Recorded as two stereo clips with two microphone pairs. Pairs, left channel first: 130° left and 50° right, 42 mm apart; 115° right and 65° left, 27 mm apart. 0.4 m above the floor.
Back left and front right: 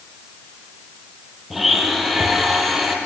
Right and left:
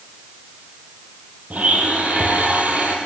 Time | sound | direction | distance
1.5 | a blender | 40° left | 4.5 m